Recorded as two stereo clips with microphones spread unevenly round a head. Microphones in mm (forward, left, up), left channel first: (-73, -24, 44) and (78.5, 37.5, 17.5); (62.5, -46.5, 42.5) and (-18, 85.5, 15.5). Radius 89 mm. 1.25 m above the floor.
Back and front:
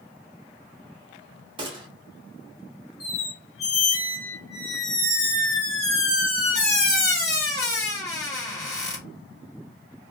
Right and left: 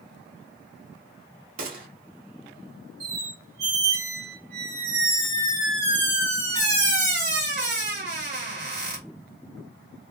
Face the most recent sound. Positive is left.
turn(degrees=150)